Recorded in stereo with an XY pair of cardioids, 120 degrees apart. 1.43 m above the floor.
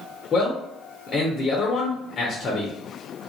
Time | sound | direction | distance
0.3 | a man speaking | 35° left | 0.8 m